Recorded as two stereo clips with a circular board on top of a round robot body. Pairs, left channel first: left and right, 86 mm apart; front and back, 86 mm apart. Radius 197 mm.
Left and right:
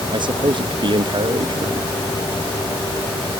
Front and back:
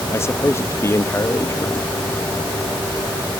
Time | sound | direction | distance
0.1 | a man speaking | 60° right | ?